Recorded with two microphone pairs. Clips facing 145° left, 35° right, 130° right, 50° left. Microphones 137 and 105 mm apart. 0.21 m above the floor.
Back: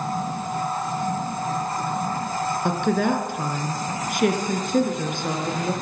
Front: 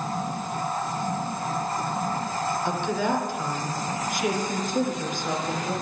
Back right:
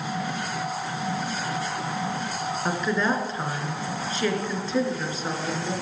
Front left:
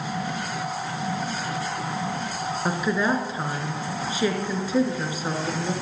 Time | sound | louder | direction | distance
2.6 | a woman speaking | back 6 dB, front left 1 dB | 130° left | 2.5 m